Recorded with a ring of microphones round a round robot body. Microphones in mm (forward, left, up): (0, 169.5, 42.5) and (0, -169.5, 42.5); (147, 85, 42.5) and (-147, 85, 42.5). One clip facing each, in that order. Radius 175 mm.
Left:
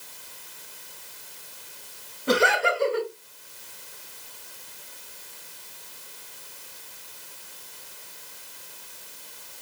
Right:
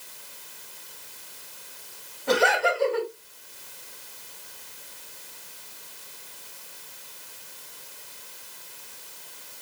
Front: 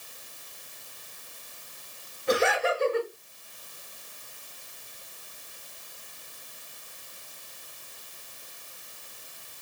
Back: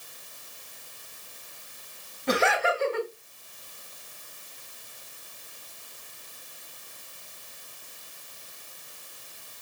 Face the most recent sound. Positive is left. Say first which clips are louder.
# even, front 1 dB
turn(degrees=175)